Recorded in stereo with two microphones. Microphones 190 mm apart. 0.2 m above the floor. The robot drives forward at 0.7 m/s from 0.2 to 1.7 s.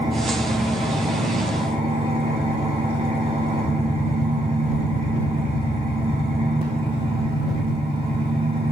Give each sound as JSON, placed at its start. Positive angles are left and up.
{"t": 0.0, "sound": "an engine running", "side_deg": -30, "distance_m": 6.0}